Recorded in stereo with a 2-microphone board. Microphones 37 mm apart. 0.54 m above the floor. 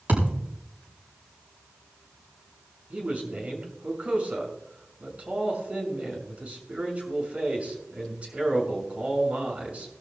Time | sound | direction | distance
0.1 | a thud | 55° right (ahead or behind) | 7.5 m
2.9 | a man speaking | 40° right (ahead or behind) | 6.5 m